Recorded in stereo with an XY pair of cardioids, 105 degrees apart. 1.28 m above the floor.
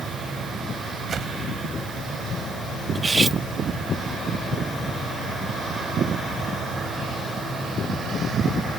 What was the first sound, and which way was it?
A whoosh, 50° right.